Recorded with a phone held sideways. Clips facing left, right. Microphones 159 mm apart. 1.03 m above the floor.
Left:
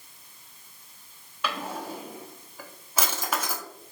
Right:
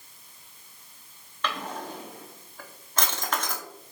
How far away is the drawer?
About 0.7 m.